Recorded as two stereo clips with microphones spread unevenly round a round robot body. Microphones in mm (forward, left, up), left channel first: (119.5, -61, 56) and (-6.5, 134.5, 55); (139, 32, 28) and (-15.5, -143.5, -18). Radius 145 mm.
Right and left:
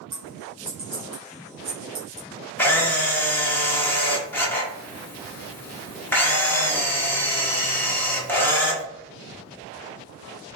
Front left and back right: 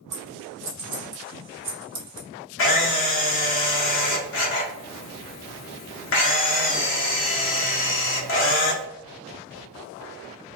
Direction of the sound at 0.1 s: 170° right.